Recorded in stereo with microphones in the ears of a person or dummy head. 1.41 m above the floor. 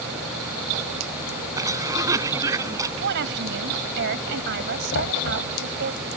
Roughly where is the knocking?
Left.